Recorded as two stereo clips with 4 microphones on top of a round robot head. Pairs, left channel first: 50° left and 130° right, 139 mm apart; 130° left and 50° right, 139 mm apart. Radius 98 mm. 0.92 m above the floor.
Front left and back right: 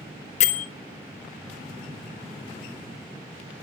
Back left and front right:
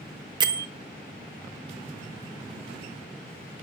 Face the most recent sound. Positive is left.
turn(degrees=10)